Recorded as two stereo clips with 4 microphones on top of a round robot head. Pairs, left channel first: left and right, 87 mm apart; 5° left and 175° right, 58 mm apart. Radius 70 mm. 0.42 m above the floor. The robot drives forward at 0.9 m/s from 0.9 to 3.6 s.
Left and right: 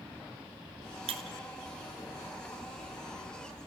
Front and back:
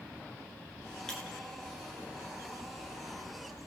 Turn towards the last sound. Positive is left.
turn(degrees=-135)